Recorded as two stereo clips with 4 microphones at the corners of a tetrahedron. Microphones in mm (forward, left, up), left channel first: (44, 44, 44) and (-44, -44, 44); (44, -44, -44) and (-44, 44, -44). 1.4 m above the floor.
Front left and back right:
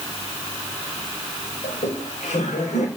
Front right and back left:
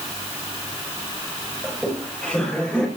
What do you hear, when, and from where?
1.6 s laughter: 40° left, 6.5 m; by 2.9 s 35° left, 5.5 m